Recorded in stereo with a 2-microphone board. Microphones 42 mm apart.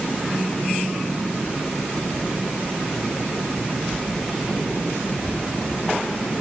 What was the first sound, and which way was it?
Only background noise.